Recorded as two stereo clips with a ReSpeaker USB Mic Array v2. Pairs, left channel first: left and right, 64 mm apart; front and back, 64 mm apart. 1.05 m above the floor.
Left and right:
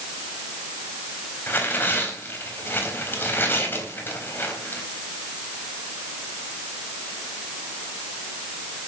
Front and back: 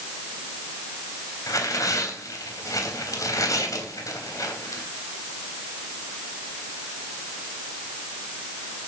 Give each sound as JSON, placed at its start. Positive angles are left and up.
{"t": 1.5, "sound": "tearing paper", "azimuth_deg": 30, "distance_m": 3.5}